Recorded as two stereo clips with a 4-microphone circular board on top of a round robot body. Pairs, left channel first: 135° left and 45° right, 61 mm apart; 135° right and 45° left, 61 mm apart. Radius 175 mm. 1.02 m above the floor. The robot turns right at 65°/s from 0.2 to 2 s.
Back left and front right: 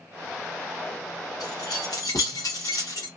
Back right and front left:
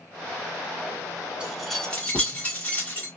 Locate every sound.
1.4 s keys jangling: 120° left, 1.0 m; by 3.1 s 160° left, 1.0 m